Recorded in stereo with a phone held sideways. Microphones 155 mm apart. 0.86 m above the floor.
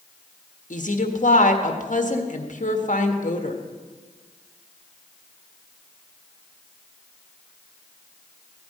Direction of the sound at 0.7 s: 60° left (ahead or behind).